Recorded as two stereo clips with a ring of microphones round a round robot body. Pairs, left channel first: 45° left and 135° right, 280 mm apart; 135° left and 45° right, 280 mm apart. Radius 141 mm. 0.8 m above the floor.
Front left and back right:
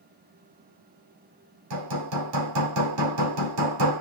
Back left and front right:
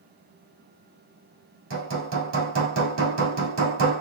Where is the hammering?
95° right, 2 m.